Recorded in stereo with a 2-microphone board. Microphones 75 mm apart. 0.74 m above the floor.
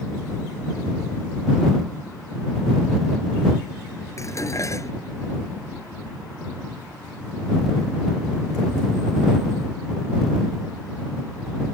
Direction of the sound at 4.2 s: 45° left (ahead or behind).